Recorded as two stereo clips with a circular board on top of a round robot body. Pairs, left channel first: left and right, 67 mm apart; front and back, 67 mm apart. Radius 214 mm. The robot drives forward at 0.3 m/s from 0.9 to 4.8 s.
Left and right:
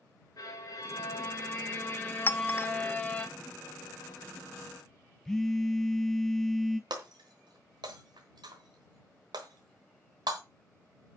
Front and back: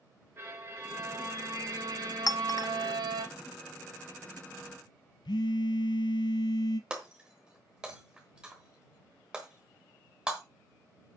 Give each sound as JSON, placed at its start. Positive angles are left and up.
{"t": 0.4, "sound": "a violin", "azimuth_deg": 125, "distance_m": 0.7}
{"t": 2.3, "sound": "a clink", "azimuth_deg": 30, "distance_m": 0.6}
{"t": 5.2, "sound": "a phone buzzing", "azimuth_deg": 5, "distance_m": 0.6}
{"t": 6.9, "sound": "breaking glass", "azimuth_deg": -100, "distance_m": 1.0}